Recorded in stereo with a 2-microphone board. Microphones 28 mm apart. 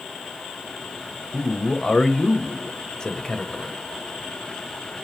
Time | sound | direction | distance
1.3 | a man speaking | 20° left (ahead or behind) | 1.0 m